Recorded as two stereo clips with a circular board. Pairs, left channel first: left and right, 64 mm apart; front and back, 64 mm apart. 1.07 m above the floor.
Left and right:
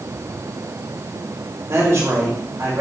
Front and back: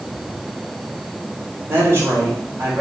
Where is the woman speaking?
130° right, 3 m.